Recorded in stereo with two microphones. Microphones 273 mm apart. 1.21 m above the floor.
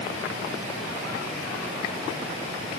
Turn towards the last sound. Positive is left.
No sound to turn to.